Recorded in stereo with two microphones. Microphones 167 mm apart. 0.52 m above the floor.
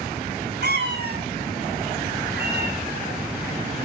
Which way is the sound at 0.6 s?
80° right.